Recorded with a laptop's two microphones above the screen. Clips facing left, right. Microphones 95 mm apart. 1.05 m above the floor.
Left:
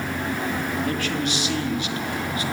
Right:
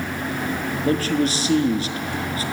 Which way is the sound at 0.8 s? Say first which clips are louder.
Right 5 dB; 35° right (ahead or behind).